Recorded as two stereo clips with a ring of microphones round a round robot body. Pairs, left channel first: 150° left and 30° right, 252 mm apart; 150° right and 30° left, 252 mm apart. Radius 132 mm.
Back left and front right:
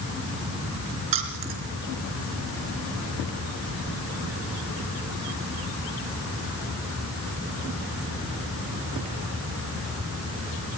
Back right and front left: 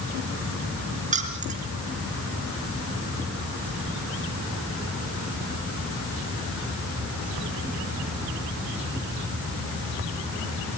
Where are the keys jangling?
35° right, 4 m.